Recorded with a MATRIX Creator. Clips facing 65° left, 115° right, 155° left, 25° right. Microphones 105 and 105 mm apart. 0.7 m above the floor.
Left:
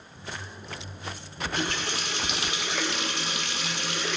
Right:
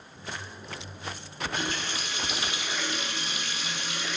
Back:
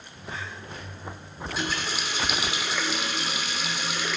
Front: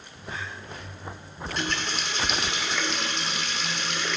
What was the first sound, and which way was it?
A running tap, 75° left.